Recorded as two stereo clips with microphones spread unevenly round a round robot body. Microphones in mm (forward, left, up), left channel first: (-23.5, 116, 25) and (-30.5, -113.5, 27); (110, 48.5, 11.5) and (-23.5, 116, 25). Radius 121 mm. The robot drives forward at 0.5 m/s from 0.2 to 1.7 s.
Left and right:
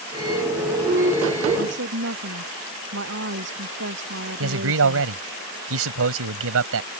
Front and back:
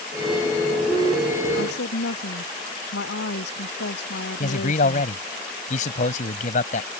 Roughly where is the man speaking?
Right.